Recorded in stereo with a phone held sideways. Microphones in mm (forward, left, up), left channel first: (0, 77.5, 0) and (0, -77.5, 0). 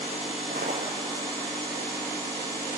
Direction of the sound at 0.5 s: 70° right (ahead or behind).